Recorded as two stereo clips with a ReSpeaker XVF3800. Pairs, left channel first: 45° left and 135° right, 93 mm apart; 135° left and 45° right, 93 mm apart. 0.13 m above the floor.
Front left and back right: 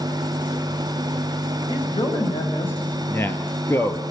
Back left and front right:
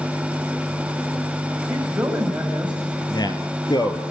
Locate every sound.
1.7 s a man speaking: 30° left, 9.5 m
3.1 s a man speaking: 105° left, 2.5 m